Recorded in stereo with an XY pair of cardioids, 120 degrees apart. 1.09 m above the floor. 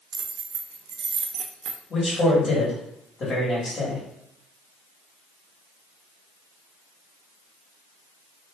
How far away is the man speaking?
About 1.6 m.